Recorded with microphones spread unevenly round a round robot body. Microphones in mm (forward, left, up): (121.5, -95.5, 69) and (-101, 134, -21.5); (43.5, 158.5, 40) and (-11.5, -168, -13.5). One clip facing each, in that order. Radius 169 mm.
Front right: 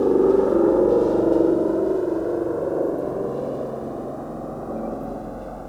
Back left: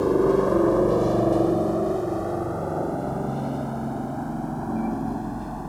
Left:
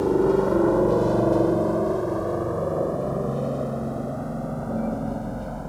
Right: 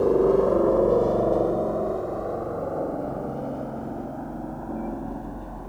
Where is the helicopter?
110° left; by 5.7 s 75° left.